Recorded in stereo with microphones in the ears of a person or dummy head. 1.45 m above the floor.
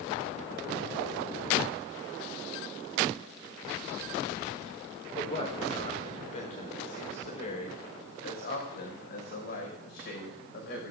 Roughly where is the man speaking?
Left.